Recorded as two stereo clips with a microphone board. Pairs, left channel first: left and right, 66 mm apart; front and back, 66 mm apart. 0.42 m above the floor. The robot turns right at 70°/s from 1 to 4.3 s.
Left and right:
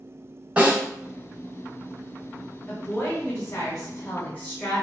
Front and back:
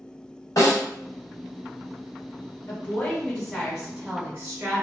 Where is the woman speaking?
20° left, 1.5 m; by 4.8 s 135° left, 1.5 m.